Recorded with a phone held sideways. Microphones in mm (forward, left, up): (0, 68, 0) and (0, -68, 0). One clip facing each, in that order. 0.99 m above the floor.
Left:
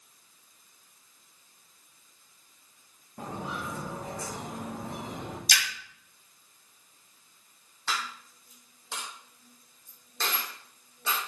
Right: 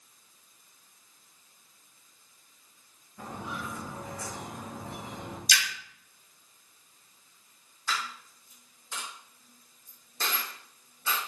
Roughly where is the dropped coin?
Left.